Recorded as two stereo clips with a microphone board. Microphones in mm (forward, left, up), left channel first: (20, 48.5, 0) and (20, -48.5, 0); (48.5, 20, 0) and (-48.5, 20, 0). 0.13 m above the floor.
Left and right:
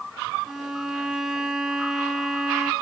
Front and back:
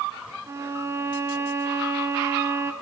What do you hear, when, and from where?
0.5 s a violin: 175° right, 1.5 m